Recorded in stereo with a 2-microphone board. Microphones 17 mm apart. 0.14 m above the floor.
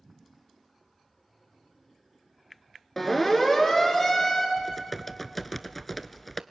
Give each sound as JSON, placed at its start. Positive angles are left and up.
{"t": 3.0, "sound": "a siren", "side_deg": 15, "distance_m": 3.0}
{"t": 4.6, "sound": "typing on a keyboard", "side_deg": 10, "distance_m": 0.6}